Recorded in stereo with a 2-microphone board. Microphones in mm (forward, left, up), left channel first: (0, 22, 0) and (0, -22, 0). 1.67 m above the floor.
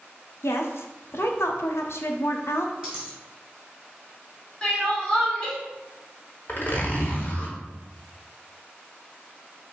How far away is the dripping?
No dripping in this recording.